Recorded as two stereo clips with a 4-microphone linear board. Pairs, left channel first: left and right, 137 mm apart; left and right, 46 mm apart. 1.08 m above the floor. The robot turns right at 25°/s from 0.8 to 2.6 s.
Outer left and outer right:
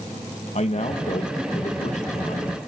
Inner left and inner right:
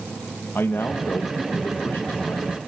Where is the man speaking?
70° left, 1.5 m; by 2.6 s 115° left, 1.5 m.